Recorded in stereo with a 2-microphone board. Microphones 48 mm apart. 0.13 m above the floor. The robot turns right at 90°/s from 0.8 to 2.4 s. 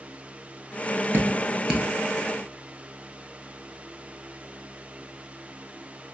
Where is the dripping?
50° right (ahead or behind), 0.9 m; by 1.9 s centre (ahead or behind), 0.9 m.